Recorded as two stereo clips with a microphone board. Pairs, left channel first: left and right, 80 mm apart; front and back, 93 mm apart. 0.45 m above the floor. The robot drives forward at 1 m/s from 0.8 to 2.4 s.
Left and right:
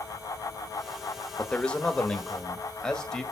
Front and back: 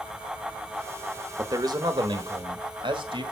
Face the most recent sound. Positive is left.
turn(degrees=170)